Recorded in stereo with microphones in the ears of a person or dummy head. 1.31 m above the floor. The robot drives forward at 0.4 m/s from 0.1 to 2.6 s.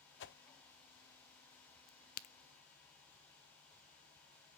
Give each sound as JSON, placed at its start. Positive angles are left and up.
{"t": 0.2, "sound": "a whoosh", "side_deg": 55, "distance_m": 0.7}
{"t": 1.9, "sound": "a crack", "side_deg": 45, "distance_m": 0.5}